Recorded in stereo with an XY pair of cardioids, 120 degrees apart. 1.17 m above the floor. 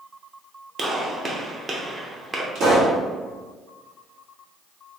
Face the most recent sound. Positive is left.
turn(degrees=-65)